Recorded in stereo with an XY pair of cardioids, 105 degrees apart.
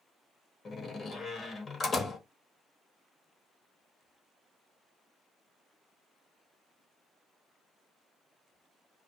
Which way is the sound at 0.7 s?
40° left.